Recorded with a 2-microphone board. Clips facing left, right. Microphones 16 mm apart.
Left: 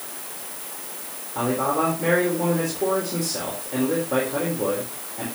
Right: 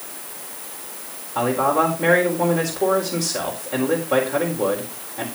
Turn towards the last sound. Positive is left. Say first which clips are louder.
# right 4 dB
turn(degrees=-30)  # may be behind; listen again after turning